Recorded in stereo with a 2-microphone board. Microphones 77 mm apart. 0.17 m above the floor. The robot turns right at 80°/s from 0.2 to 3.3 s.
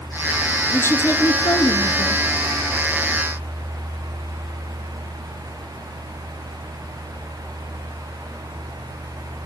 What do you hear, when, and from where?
0.7 s a woman speaking: 25° left, 2 m; by 2.2 s 145° left, 2 m